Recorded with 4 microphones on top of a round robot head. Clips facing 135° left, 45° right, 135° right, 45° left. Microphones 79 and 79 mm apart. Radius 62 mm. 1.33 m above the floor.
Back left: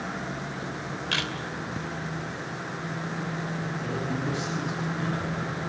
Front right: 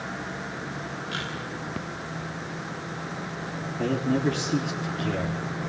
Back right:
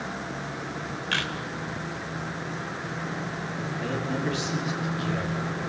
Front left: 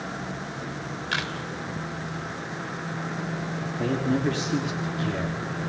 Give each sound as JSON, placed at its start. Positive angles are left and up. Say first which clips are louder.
{"t": 1.1, "sound": "a camera shutter", "louder": "back left 4 dB, even", "azimuth_deg": 125, "distance_m": 3.0}
{"t": 3.8, "sound": "a man speaking", "louder": "front right 9 dB, front left 5 dB", "azimuth_deg": -10, "distance_m": 3.5}